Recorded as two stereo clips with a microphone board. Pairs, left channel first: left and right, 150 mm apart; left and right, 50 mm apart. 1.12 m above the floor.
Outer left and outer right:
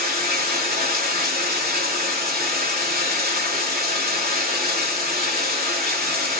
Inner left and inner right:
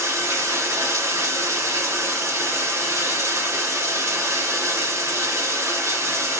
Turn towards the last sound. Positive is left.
turn(degrees=-75)  # may be behind; listen again after turning